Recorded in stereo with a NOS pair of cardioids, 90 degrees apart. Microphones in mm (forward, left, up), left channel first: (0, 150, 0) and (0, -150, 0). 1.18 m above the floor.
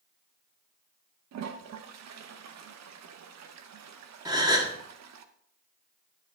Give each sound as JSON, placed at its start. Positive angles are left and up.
{"t": 1.3, "sound": "a toilet flushing", "azimuth_deg": -60, "distance_m": 1.0}
{"t": 4.2, "sound": "a gasp", "azimuth_deg": -15, "distance_m": 1.8}